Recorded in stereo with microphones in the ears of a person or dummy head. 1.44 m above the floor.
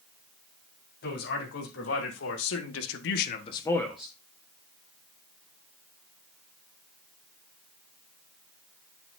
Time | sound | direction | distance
1.0 | a man speaking | 60° left (ahead or behind) | 3.5 m